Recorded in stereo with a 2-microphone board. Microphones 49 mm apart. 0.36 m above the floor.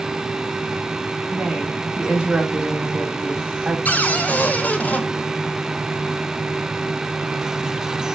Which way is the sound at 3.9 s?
35° left (ahead or behind).